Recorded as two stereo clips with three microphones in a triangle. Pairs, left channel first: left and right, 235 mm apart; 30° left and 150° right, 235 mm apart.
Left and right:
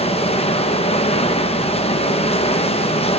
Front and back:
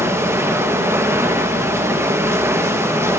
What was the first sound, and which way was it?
Running water, 140° left.